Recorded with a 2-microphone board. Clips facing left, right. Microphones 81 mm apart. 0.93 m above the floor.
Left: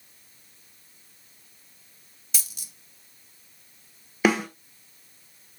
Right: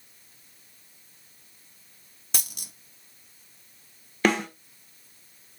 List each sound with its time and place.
2.3 s a dropped coin: 55° right (ahead or behind), 0.6 m
4.2 s a snare drum: 5° left (ahead or behind), 1.3 m